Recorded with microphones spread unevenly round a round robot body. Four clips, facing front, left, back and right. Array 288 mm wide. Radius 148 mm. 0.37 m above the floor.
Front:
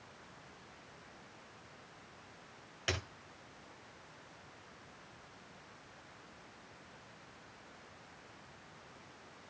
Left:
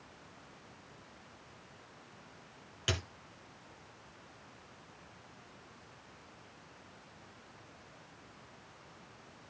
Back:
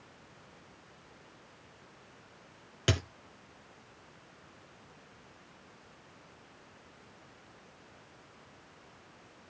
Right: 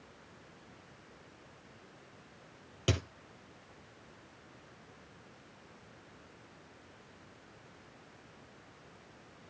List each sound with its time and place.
2.9 s a dropped coin: 145° right, 1.5 m